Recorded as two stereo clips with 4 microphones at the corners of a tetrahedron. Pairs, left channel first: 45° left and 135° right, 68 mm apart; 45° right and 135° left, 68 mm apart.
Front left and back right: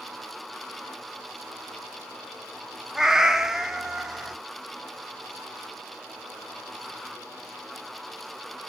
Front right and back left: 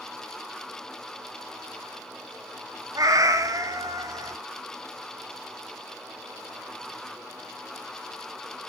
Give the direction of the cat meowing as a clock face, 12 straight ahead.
7 o'clock.